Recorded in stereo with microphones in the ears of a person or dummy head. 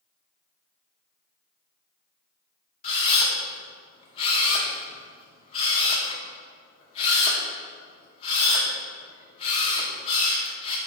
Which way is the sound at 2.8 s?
35° left (ahead or behind).